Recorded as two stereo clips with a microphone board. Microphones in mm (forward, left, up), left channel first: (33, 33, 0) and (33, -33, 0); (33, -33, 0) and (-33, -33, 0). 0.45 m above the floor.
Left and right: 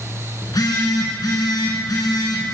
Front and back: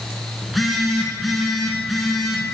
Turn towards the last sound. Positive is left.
turn(degrees=90)